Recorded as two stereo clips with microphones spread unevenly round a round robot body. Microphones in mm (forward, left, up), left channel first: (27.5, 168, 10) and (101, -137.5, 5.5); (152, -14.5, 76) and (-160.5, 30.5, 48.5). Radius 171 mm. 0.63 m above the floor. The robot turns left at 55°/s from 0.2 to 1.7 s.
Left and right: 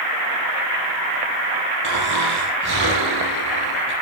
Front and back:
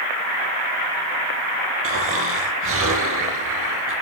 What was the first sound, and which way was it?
Snoring, 135° right.